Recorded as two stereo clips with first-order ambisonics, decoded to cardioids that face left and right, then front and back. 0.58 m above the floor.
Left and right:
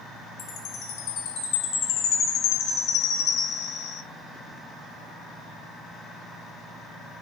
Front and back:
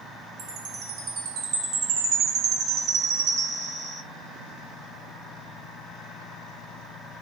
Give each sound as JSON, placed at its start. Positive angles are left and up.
{"t": 0.4, "sound": "a chime", "azimuth_deg": 130, "distance_m": 0.7}